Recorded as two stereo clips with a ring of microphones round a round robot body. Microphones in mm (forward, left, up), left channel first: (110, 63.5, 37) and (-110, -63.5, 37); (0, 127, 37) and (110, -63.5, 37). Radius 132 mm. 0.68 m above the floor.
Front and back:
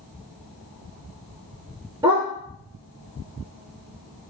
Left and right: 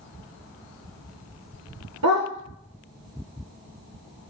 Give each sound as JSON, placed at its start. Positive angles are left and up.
{"t": 2.0, "sound": "a dog barking", "azimuth_deg": -75, "distance_m": 3.5}